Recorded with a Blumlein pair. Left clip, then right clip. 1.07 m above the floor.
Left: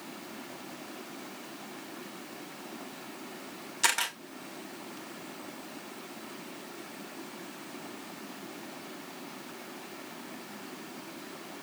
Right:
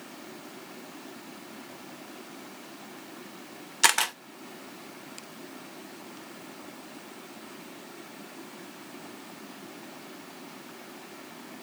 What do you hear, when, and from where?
3.8 s a camera shutter: 70° right, 0.6 m